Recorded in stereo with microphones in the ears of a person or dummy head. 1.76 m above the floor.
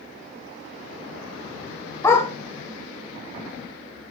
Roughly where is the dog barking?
Left.